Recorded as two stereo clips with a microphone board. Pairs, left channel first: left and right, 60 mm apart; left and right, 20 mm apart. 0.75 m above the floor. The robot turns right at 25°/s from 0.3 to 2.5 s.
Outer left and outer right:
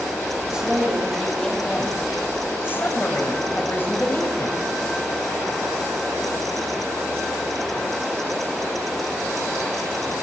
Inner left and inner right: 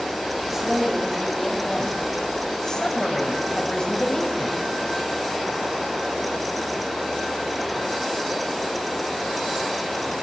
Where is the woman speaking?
15° right, 4.5 m; by 4.6 s 35° left, 4.5 m.